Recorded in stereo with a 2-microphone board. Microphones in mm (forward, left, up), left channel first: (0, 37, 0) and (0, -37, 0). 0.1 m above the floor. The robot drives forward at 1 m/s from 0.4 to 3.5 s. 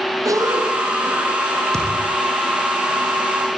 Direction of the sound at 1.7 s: 10° left (ahead or behind).